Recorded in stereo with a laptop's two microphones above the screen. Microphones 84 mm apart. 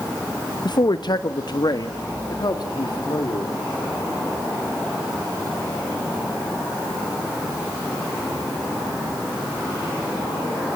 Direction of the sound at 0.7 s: 60° left (ahead or behind).